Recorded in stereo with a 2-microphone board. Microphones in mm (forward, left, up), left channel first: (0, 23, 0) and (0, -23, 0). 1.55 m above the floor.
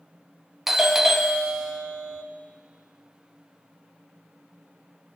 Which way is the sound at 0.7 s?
10° right (ahead or behind).